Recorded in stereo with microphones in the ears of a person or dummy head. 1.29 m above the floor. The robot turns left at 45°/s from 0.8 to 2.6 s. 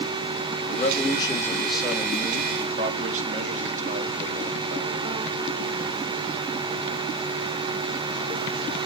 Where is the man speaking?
45° left, 2 m; by 4.9 s 40° right, 2 m.